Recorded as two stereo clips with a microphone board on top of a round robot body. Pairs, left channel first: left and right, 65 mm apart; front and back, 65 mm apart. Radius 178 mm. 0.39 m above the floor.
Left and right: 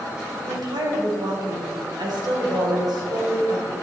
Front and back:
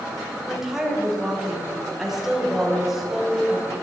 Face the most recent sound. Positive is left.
turn(degrees=-95)